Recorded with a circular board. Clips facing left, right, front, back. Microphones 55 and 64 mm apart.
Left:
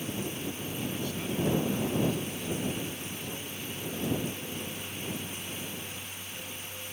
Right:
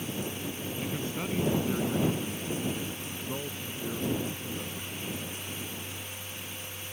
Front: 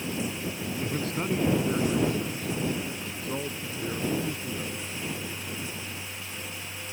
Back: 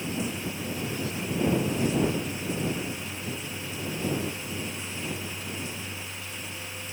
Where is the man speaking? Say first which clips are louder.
Right 1 dB, front 4 dB; 30° right.